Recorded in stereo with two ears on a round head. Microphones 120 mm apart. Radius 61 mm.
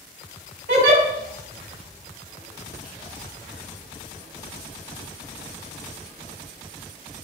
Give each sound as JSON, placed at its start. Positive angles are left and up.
{"t": 0.7, "sound": "a giggle", "side_deg": -65, "distance_m": 1.7}